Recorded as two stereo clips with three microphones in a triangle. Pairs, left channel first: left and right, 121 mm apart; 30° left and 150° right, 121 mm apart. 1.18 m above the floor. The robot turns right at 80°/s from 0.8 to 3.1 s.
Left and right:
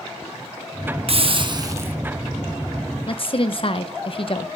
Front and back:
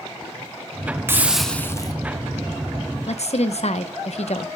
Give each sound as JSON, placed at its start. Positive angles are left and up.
{"t": 1.1, "sound": "a hiss", "azimuth_deg": -85, "distance_m": 0.8}
{"t": 3.1, "sound": "a woman speaking", "azimuth_deg": 50, "distance_m": 0.9}